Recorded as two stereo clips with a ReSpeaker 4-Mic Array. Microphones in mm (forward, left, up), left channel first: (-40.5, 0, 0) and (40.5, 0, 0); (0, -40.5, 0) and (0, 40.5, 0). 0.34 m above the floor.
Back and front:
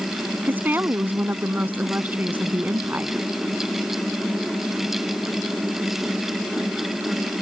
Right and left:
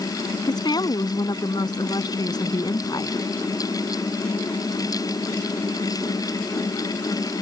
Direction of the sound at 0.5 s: 65° right.